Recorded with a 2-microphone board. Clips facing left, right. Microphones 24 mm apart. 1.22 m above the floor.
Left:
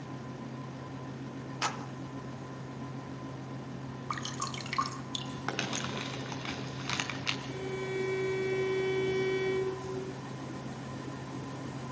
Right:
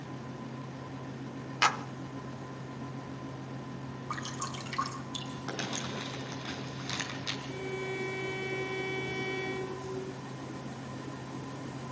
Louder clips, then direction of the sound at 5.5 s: Left 2 dB; 75° left (ahead or behind).